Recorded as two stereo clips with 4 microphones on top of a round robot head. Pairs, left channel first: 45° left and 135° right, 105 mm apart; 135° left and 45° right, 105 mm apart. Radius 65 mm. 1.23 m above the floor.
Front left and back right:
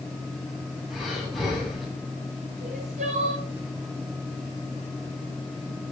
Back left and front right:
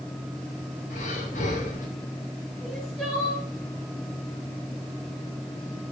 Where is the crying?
135° right, 7 m.